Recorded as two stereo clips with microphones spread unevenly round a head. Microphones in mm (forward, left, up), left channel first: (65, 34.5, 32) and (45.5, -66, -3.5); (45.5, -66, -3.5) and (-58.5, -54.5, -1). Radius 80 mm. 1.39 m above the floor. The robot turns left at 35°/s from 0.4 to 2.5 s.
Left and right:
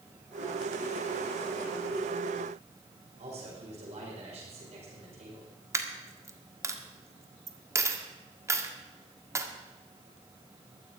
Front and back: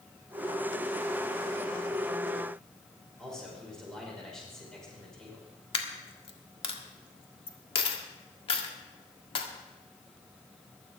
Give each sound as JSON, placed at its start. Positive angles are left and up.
{"t": 3.2, "sound": "a man speaking", "azimuth_deg": -90, "distance_m": 6.0}
{"t": 5.7, "sound": "a dropped coin", "azimuth_deg": -30, "distance_m": 1.6}